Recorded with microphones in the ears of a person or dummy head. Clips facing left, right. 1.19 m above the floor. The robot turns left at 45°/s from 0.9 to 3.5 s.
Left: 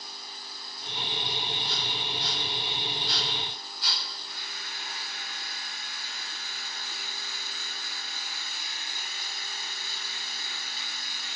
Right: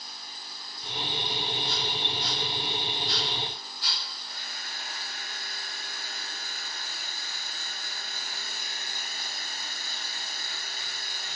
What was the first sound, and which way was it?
A chime, 5° left (ahead or behind).